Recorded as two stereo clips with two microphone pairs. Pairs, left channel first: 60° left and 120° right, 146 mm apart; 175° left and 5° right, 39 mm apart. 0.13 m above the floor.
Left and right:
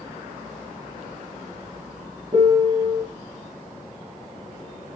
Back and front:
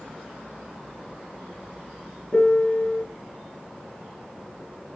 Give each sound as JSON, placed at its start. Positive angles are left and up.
{"t": 2.3, "sound": "a piano", "azimuth_deg": -160, "distance_m": 1.9}